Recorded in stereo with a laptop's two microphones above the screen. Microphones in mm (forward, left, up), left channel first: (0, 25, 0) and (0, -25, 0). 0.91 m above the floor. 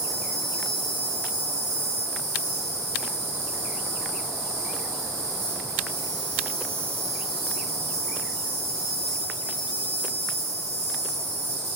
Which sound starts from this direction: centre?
An insect, at 0.0 s.